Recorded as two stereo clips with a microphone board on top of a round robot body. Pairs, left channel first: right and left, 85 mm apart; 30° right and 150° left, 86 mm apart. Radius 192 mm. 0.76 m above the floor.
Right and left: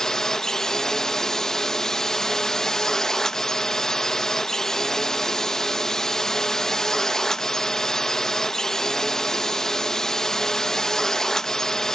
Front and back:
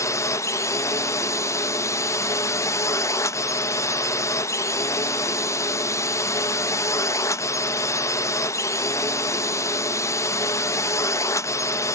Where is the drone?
10° right.